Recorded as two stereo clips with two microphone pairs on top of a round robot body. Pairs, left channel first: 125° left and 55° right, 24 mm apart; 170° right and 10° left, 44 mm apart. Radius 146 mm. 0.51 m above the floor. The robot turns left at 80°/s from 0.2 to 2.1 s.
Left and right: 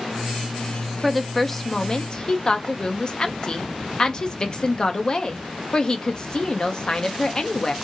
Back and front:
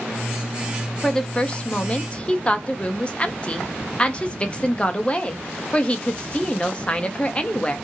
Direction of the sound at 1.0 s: 100° right.